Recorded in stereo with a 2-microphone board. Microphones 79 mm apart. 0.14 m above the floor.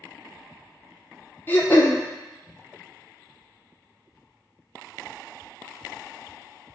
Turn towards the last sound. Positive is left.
turn(degrees=25)  # may be behind; listen again after turning